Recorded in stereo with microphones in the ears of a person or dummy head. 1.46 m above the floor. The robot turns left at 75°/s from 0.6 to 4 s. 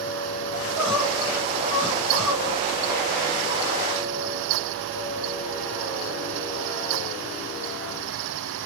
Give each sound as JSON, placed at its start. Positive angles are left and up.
{"t": 0.5, "sound": "crying", "azimuth_deg": 125, "distance_m": 2.0}